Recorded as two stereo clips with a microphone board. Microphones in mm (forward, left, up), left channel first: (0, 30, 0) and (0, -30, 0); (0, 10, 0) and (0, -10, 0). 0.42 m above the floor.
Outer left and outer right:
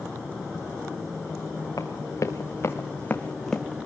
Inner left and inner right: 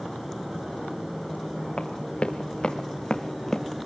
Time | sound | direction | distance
1.8 | running footsteps | 70° left (ahead or behind) | 2.5 m